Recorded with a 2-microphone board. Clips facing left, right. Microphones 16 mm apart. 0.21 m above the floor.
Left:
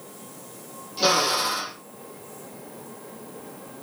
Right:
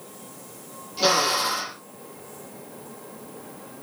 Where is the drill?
5° left (ahead or behind), 6.5 m.